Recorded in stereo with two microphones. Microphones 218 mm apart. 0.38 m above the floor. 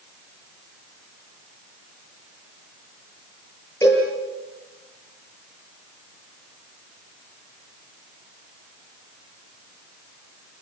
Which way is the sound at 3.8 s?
15° left (ahead or behind).